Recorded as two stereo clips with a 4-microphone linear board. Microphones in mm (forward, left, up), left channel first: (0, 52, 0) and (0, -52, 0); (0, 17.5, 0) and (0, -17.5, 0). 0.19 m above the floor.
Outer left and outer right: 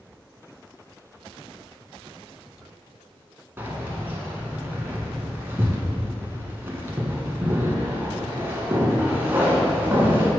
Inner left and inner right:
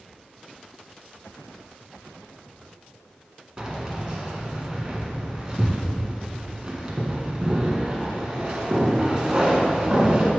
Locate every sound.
3.6 s keys jangling: 20° right (ahead or behind), 1.5 m